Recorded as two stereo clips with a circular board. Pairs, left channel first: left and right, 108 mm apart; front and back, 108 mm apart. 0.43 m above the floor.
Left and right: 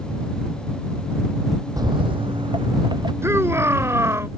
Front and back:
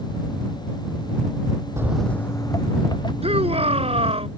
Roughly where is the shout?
Behind right.